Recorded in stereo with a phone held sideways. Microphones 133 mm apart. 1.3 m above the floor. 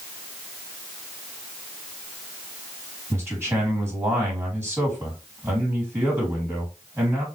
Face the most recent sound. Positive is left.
turn(degrees=-15)  # may be behind; listen again after turning